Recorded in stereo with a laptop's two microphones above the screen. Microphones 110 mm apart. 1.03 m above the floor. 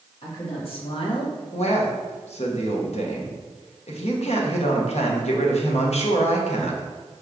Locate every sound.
0.2 s a woman speaking: 55° left (ahead or behind), 1.7 m; by 1.4 s 40° left (ahead or behind), 0.7 m
1.5 s a man speaking: 70° left (ahead or behind), 0.8 m